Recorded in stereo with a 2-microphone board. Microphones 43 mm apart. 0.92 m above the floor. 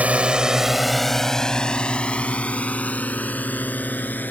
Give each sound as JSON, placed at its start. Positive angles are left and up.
{"t": 0.0, "sound": "a drone", "side_deg": -30}